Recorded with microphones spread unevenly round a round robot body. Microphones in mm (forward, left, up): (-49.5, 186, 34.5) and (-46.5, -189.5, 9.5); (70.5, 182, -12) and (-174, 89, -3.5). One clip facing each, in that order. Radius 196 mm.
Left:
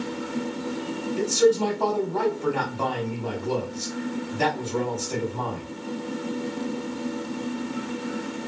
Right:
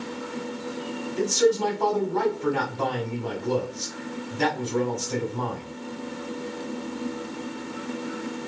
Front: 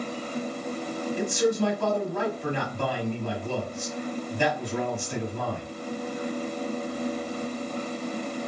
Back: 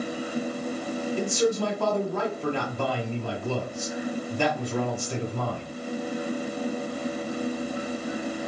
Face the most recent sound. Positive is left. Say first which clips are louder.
# left 1 dB, front 1 dB
turn(degrees=-150)